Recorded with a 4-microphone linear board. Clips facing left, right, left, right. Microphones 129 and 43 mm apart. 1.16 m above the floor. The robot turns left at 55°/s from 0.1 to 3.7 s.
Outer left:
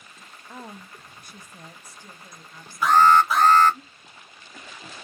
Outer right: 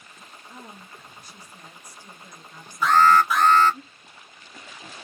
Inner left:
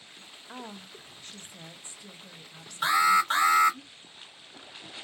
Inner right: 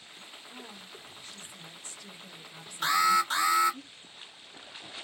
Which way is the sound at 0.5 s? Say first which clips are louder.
Outer left 4 dB, inner left 7 dB; 105° left.